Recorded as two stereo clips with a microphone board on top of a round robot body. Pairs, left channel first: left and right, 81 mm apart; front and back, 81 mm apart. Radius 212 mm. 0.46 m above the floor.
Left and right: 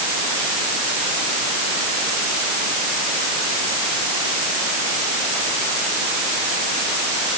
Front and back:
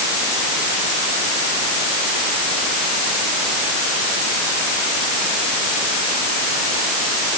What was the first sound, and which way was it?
Only background noise.